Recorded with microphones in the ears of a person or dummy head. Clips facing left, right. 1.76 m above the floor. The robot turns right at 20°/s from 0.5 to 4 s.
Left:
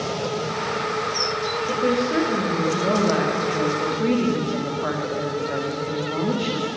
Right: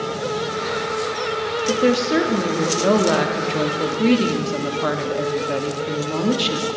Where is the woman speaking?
110° right, 0.7 m; by 6.7 s 65° right, 0.7 m.